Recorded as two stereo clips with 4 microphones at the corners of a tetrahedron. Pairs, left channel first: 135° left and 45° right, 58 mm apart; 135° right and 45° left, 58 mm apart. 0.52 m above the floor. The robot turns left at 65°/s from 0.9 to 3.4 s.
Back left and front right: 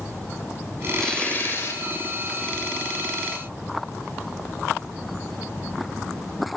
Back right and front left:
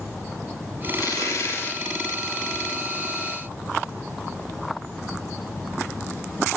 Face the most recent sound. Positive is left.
turn(degrees=65)